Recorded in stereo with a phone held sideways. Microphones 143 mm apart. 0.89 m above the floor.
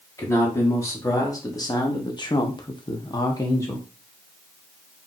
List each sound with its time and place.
0.2 s a man speaking: 20° left (ahead or behind), 2 m; by 3.8 s 15° left (ahead or behind), 0.9 m